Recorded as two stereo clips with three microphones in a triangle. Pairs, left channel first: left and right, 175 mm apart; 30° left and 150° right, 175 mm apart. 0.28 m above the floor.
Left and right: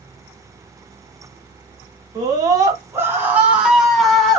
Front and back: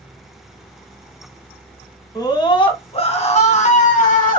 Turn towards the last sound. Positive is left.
turn(degrees=5)